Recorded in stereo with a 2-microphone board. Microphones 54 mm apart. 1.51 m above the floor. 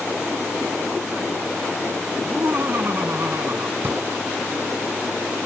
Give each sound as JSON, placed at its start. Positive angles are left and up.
{"t": 2.2, "sound": "laughter", "side_deg": -45}
{"t": 3.8, "sound": "a drawer", "side_deg": -45}